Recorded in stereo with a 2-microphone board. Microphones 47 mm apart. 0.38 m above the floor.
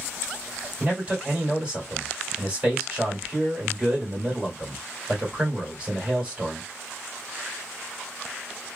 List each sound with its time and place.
0.8 s a man speaking: 20° right (ahead or behind), 1.7 m